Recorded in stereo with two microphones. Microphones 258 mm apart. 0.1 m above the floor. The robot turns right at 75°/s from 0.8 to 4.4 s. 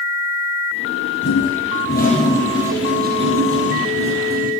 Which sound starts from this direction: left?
A toilet flushing, at 1.2 s.